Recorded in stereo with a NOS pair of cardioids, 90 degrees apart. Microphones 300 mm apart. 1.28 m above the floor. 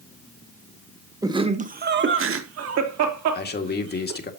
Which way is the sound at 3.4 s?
35° left.